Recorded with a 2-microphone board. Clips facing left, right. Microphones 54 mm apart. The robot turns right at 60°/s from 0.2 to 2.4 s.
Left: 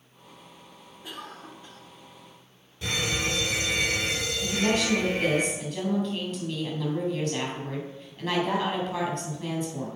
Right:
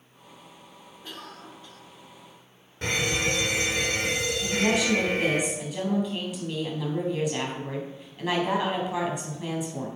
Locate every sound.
1.0 s a cough: 15° left, 1.4 m; by 1.8 s 60° left, 1.4 m
2.8 s a fire alarm: 50° right (ahead or behind), 3 m
4.4 s a woman speaking: 10° right (ahead or behind), 3.5 m